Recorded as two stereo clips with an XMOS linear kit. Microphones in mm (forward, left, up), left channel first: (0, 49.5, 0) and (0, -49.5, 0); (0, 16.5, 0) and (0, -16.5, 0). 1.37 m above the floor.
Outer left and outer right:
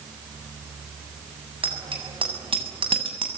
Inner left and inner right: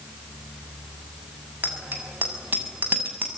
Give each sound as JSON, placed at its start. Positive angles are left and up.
{"t": 1.6, "sound": "a bicycle bell", "side_deg": -65, "distance_m": 7.0}